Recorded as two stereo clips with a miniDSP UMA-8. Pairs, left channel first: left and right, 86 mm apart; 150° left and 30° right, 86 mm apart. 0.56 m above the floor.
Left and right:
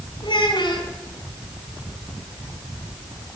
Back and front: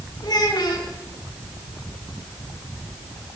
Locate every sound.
0.2 s a child speaking: 110° left, 4 m